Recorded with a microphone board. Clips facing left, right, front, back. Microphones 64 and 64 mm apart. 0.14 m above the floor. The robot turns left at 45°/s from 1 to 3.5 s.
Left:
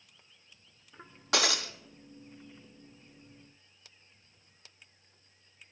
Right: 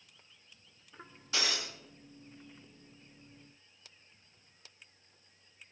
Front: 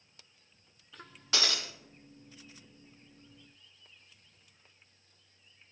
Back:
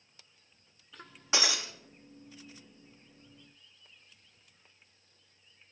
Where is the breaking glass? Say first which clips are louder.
Left 6 dB, back 2 dB; 110° left, 0.8 m; by 1.7 s 90° left, 0.8 m.